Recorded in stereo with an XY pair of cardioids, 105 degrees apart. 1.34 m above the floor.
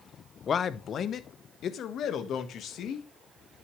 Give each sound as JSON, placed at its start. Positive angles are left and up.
{"t": 0.5, "sound": "a man speaking", "azimuth_deg": 45, "distance_m": 0.8}